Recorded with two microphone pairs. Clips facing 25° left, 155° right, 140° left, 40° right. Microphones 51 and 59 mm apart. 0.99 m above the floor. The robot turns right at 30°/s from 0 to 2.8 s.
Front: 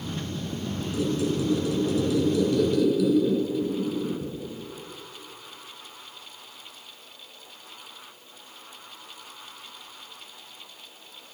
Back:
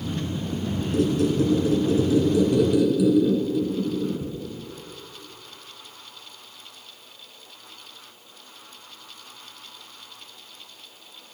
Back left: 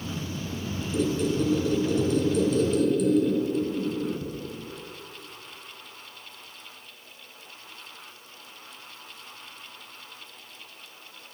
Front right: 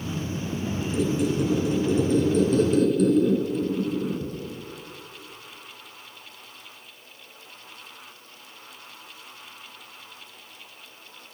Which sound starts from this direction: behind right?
A squeak, at 0.9 s.